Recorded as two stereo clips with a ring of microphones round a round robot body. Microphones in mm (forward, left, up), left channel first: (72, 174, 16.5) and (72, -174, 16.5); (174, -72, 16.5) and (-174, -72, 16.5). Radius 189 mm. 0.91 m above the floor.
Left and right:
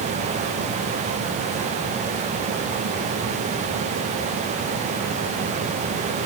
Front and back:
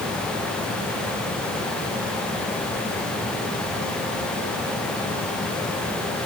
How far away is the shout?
No shout in this recording.